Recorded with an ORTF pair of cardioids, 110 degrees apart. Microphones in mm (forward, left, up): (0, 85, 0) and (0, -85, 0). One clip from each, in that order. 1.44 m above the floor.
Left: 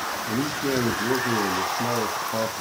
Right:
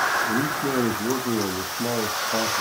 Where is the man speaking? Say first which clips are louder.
Right 2 dB; 5° right, 1.3 m.